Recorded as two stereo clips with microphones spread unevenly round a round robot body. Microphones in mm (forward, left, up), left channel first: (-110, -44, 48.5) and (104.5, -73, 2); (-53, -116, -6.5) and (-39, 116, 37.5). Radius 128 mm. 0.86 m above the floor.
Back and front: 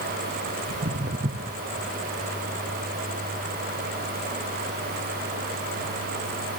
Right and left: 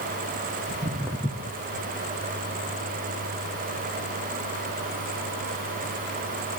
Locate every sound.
0.7 s footsteps: 45° left, 1.1 m; by 5.5 s 120° right, 5 m